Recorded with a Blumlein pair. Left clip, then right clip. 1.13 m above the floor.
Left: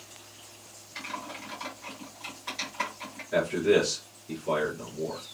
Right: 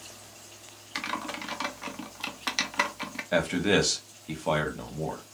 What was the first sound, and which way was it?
Typing on a keyboard, 50° right.